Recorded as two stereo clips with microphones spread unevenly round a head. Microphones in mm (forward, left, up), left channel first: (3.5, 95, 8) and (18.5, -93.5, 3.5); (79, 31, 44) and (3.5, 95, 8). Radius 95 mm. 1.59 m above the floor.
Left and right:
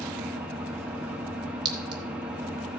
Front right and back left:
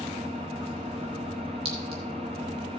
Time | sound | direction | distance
0.0 | an engine running | 170° right | 1.2 m
1.6 | a clink | 150° right | 1.2 m